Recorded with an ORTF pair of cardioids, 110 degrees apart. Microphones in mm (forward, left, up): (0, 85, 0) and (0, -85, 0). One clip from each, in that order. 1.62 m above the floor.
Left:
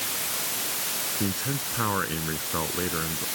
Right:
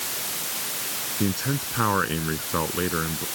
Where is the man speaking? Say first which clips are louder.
Right 2 dB; 30° right.